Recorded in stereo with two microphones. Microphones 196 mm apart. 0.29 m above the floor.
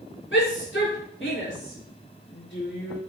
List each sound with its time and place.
0.3 s a shout: 75° left (ahead or behind), 5 m